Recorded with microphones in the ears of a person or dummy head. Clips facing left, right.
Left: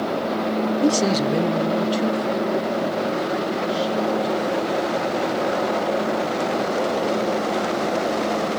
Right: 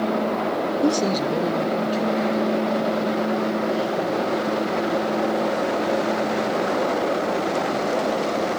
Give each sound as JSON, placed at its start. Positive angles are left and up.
{"t": 0.8, "sound": "a man speaking", "side_deg": 0, "distance_m": 0.7}